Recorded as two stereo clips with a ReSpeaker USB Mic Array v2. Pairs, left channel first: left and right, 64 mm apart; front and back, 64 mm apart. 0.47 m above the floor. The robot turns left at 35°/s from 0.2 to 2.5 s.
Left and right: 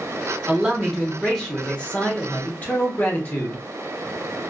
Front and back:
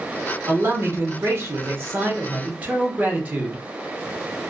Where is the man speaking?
160° right, 0.9 m; by 3.6 s 130° left, 0.9 m.